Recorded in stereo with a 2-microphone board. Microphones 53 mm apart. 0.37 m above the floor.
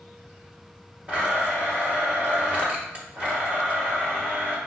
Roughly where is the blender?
Right.